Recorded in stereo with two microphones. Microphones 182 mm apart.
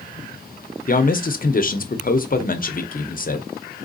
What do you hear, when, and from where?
0.9 s a man speaking: 50° left (ahead or behind), 0.6 m